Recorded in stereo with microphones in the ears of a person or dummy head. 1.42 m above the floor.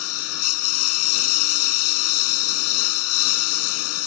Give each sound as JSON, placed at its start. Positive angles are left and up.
{"t": 0.0, "sound": "a lawn mower", "side_deg": 75}